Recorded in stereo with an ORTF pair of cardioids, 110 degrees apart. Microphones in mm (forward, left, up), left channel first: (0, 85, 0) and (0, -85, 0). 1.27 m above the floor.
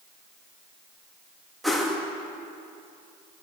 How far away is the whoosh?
About 2.5 m.